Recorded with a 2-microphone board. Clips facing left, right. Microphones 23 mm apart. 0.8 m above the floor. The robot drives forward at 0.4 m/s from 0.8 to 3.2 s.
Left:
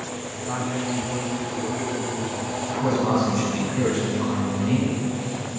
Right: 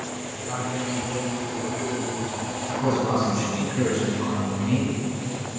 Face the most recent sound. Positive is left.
turn(degrees=10)  # may be behind; listen again after turning